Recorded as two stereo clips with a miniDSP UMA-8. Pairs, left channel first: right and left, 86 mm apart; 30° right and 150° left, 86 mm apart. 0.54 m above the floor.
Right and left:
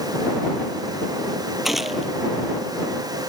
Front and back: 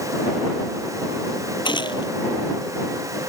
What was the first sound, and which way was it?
A gunshot, straight ahead.